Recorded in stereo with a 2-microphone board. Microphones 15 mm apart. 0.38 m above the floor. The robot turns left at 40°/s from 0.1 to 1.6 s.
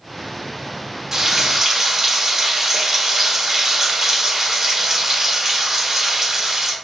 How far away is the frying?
About 1.5 m.